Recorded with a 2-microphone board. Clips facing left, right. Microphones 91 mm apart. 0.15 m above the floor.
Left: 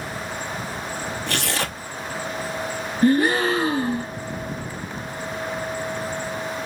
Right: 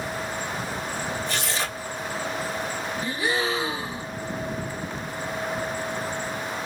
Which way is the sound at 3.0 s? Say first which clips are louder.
Left 10 dB; 60° left (ahead or behind).